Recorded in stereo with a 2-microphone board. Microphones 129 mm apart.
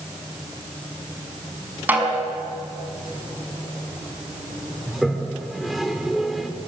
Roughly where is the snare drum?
Centre.